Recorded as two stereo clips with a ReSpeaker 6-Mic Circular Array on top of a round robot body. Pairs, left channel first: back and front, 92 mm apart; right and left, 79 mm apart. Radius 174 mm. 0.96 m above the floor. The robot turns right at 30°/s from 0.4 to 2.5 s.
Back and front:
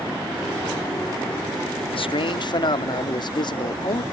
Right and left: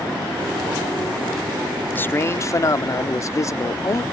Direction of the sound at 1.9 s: 160° right.